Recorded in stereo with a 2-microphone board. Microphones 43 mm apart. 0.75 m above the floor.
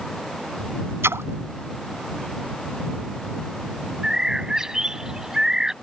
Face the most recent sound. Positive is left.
turn(degrees=-15)  # may be behind; listen again after turning